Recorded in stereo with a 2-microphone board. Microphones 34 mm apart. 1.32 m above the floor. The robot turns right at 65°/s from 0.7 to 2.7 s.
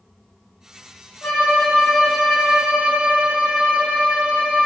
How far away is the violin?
About 2 m.